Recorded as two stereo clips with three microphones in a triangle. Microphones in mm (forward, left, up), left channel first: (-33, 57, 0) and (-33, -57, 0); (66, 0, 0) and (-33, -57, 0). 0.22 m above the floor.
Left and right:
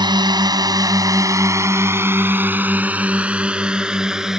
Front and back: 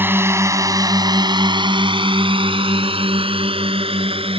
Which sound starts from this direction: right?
A drone, at 0.0 s.